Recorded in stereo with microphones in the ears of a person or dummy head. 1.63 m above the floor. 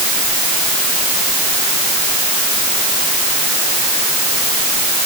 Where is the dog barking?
No dog barking in this recording.